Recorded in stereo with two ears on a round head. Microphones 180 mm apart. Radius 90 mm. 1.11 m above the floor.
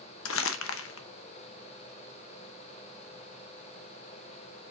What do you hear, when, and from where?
0.2 s crumpling: 75° left (ahead or behind), 1.0 m